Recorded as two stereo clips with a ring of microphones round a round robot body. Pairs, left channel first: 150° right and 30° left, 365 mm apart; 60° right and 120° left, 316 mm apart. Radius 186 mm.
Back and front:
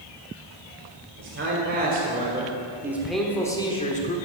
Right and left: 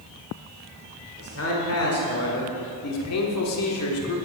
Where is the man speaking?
20° right, 1.9 m; by 4.2 s 90° right, 1.4 m.